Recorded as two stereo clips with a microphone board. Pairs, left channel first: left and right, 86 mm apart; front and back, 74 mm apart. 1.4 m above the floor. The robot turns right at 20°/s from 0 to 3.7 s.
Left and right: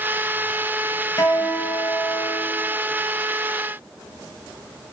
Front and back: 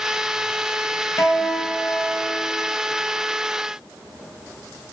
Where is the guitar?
45° left, 6.5 m; by 2.5 s 75° left, 6.5 m.